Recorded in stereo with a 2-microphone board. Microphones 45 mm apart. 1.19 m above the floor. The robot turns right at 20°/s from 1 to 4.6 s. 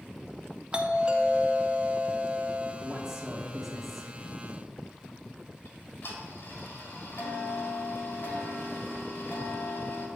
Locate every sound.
0.7 s a doorbell: 145° right, 0.6 m; by 2.7 s 110° right, 0.6 m
2.8 s a man speaking: 15° right (ahead or behind), 0.8 m; by 4.1 s 10° left (ahead or behind), 0.8 m
5.7 s ticking: 70° left (ahead or behind), 1.6 m